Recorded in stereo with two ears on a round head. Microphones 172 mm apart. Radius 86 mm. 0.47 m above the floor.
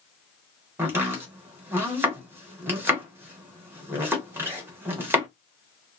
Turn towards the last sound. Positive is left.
turn(degrees=-15)  # may be behind; listen again after turning